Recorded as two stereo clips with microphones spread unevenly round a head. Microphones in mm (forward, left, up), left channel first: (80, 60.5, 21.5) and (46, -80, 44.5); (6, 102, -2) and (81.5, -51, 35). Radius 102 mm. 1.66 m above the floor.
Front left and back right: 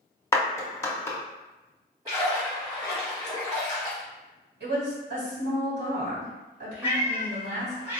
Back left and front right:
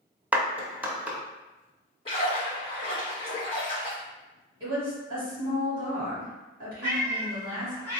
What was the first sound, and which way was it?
A clap, straight ahead.